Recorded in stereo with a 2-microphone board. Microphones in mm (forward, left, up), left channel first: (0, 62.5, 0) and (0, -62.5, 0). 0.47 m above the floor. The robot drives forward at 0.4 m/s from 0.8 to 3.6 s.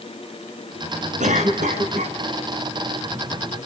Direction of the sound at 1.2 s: 80° right.